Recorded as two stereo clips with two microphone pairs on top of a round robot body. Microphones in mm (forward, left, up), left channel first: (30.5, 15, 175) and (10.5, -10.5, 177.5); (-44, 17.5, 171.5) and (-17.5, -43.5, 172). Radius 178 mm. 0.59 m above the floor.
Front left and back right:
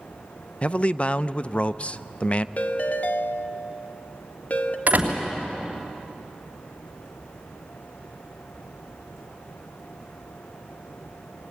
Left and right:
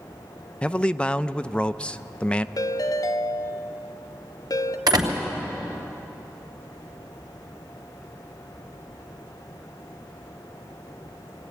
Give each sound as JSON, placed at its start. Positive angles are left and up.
{"t": 0.6, "sound": "a man speaking", "azimuth_deg": 50, "distance_m": 0.7}
{"t": 2.6, "sound": "a ringtone", "azimuth_deg": 90, "distance_m": 0.9}
{"t": 4.9, "sound": "a door slam", "azimuth_deg": -85, "distance_m": 3.0}